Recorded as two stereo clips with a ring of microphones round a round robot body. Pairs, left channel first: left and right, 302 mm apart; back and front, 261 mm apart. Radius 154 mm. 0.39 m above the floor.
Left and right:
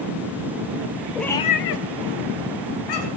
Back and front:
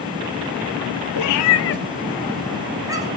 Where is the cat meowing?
Straight behind, 1.1 m; by 3.1 s 75° left, 2 m.